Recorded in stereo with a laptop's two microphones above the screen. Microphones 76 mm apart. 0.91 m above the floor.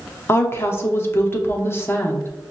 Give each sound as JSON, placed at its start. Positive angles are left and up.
{"t": 0.3, "sound": "a woman speaking", "side_deg": 35, "distance_m": 0.7}